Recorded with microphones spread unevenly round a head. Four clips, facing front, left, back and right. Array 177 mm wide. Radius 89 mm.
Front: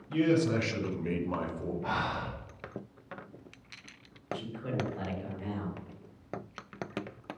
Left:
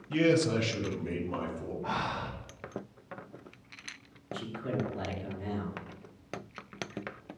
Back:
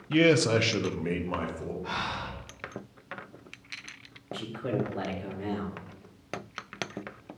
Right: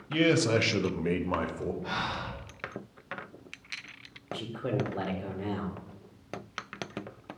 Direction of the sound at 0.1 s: Straight behind.